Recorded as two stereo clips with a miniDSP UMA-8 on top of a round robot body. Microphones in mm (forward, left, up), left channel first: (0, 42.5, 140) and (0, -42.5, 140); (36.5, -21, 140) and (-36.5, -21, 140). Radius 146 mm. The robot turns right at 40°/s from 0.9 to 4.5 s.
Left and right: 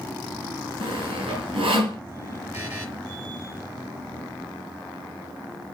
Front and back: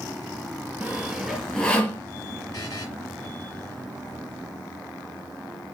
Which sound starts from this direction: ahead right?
A buzzer, at 2.5 s.